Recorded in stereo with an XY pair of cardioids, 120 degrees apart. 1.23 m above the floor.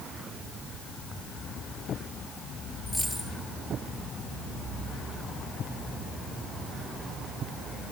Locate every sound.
2.9 s a dropped coin: 10° left, 7 m